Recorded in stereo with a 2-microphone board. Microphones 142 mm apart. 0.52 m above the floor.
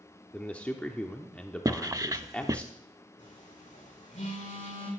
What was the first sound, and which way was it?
A man speaking, 10° left (ahead or behind).